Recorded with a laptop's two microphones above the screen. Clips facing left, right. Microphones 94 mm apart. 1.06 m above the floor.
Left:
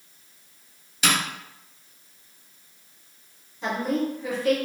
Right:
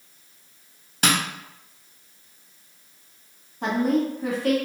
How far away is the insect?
No insect in this recording.